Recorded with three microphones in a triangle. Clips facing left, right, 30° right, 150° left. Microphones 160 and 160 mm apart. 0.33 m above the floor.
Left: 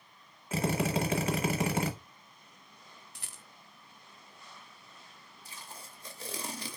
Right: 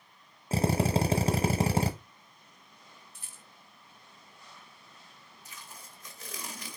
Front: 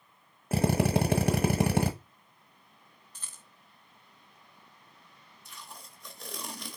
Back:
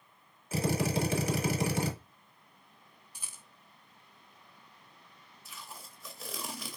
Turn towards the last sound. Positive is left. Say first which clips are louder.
# left 2 dB, even
turn(degrees=65)